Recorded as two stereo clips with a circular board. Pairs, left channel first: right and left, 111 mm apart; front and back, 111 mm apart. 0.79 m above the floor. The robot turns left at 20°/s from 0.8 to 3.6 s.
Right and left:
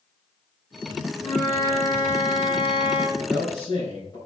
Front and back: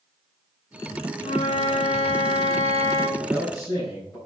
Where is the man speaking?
40° right, 4 m; by 4.2 s 50° right, 4 m.